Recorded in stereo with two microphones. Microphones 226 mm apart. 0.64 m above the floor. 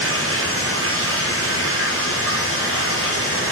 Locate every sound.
0.0 s running water: 70° right (ahead or behind), 4 m